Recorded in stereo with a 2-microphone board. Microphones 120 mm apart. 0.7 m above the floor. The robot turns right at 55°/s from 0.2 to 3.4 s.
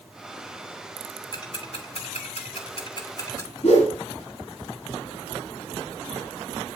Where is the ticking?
35° left (ahead or behind), 2.5 m; by 3.5 s 25° left (ahead or behind), 2.5 m.